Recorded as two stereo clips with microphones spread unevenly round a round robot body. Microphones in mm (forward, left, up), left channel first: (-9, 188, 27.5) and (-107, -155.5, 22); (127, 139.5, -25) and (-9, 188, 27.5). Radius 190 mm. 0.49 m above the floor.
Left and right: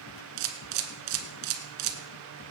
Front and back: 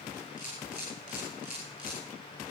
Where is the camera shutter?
90° right, 1.5 m.